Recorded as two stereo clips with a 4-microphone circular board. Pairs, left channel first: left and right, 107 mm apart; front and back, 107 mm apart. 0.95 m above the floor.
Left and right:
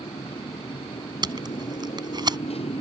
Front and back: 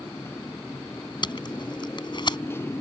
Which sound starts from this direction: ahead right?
Tape being pulled, at 1.2 s.